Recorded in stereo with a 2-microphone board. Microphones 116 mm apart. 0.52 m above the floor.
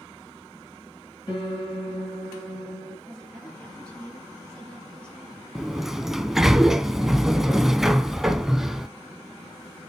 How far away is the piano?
About 5.5 m.